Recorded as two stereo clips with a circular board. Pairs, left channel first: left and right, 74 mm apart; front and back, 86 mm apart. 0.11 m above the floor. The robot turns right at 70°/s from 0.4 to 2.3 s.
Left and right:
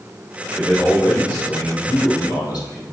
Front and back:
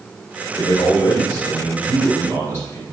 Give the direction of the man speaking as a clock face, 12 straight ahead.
12 o'clock.